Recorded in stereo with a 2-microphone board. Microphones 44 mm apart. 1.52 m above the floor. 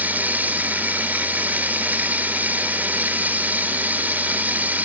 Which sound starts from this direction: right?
Running water, at 0.0 s.